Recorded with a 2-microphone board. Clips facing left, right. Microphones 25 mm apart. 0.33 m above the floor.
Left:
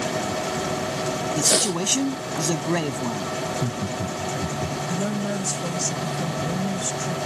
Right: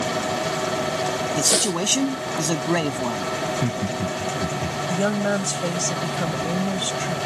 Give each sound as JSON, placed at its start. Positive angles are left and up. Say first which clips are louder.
{"t": 1.4, "sound": "a man speaking", "louder": "even", "side_deg": -15}
{"t": 3.4, "sound": "laughter", "louder": "right 2 dB", "side_deg": -75}
{"t": 4.9, "sound": "a woman speaking", "louder": "right 7 dB", "side_deg": -50}